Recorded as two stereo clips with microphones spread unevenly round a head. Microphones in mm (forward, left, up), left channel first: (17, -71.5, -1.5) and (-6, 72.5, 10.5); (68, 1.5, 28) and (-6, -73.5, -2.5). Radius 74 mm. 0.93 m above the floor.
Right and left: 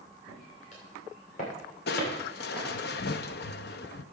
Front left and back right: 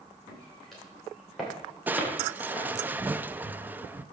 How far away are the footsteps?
About 7.5 m.